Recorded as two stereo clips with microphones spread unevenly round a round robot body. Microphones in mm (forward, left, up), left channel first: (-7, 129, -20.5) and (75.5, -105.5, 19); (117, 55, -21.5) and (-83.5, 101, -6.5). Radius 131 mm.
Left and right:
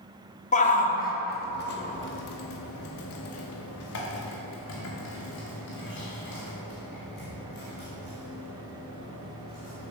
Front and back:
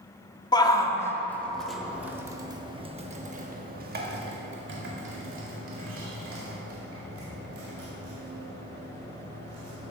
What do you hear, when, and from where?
0.5 s a shout: 55° left, 2.5 m; by 9.9 s 170° left, 5.5 m